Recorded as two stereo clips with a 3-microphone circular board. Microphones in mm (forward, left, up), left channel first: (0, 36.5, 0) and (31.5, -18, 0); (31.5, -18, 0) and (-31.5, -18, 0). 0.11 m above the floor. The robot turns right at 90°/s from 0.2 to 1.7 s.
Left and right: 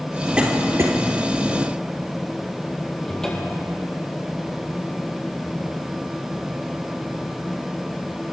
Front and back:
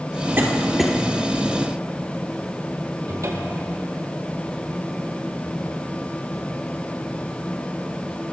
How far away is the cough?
About 3.5 m.